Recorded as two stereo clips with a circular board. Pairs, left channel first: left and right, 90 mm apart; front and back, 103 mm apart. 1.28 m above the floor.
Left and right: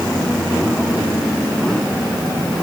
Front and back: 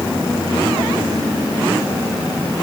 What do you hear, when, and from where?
Only background noise.